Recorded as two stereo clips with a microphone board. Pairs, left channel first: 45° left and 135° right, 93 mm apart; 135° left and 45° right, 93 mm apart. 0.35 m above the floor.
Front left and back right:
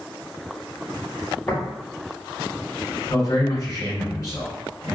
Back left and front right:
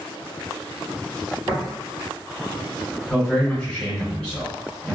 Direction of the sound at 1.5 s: 5° right.